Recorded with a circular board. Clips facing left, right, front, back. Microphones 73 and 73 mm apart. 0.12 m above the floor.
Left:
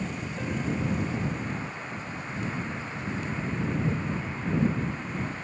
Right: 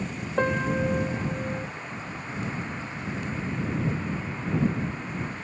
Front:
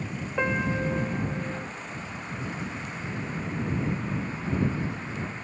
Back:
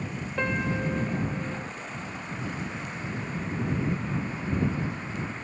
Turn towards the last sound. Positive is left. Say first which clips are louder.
# right 7 dB, front 2 dB
turn(degrees=-75)